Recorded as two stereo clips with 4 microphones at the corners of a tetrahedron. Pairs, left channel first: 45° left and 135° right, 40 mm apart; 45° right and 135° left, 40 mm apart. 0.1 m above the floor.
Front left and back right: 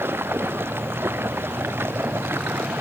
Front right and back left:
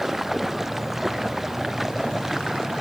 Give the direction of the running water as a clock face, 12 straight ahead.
5 o'clock.